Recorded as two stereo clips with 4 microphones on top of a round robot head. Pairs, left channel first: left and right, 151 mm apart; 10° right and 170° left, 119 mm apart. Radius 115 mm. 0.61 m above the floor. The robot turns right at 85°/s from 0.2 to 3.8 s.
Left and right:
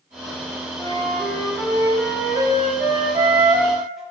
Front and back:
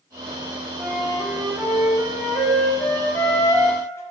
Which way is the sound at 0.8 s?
100° left.